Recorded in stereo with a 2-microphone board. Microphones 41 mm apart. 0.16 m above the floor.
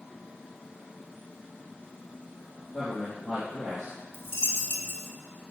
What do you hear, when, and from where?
2.7 s a man speaking: 10° left (ahead or behind), 3.5 m
4.1 s a dropped coin: 60° left (ahead or behind), 1.4 m